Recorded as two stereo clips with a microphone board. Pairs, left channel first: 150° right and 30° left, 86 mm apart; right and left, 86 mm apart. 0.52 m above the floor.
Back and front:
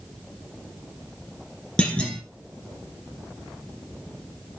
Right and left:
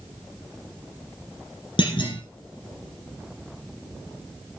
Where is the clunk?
75° right, 3 m.